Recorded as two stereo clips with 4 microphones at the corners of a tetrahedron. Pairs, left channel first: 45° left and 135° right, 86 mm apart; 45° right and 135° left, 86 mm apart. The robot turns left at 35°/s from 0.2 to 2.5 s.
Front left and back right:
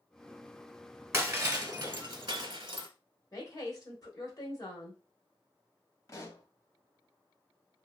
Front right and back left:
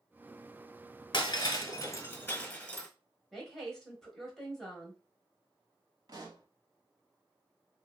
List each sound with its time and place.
1.1 s breaking glass: 70° right, 0.7 m; by 2.9 s 120° right, 0.7 m
3.3 s a woman speaking: 40° left, 1.0 m
6.1 s a pop: 95° left, 0.6 m